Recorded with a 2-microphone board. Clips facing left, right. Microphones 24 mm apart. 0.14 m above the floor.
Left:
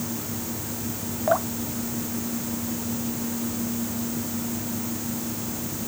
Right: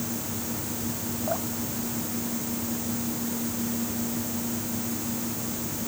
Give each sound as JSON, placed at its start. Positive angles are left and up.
{"t": 1.3, "sound": "dripping", "side_deg": 55}